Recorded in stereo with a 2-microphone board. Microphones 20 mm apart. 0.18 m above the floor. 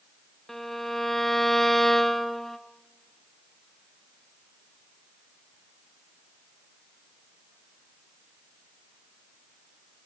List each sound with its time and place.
0.5 s a violin: 15° left (ahead or behind), 1.3 m